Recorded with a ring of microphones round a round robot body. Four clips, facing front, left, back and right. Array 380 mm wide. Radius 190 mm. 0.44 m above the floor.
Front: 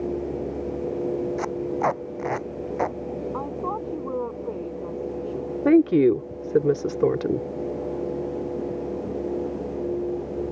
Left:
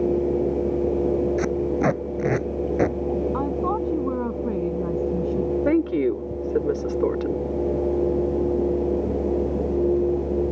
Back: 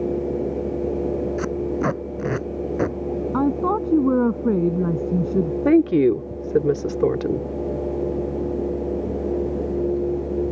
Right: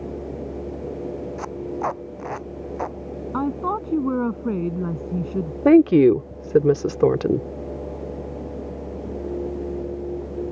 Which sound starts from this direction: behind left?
Tape being pulled, at 1.4 s.